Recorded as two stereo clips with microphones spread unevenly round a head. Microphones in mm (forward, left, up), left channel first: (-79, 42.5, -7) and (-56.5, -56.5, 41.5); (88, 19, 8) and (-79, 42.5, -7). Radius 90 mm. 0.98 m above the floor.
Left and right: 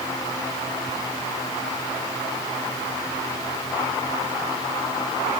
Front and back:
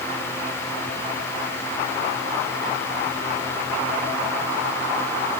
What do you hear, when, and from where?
Only background noise.